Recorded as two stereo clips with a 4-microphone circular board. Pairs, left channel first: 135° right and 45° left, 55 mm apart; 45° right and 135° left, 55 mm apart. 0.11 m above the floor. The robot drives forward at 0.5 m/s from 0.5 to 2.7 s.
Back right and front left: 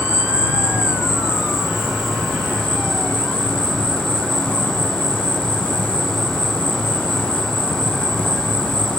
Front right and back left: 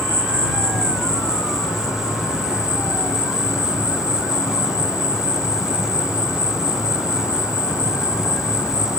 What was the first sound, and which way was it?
An insect, 35° right.